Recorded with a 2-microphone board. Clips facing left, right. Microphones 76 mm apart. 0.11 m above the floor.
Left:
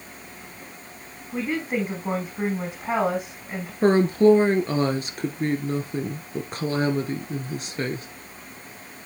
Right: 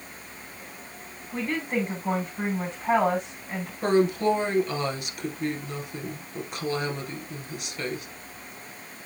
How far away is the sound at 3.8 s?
About 1.4 m.